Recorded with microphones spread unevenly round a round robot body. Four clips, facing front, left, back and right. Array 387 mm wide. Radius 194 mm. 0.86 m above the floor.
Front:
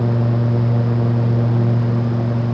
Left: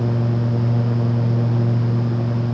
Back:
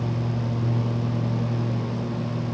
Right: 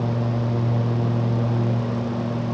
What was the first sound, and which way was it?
Only background noise.